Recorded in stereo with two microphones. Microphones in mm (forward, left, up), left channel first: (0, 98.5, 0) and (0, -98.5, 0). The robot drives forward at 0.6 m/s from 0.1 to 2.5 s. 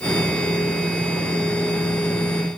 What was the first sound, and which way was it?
Only background noise.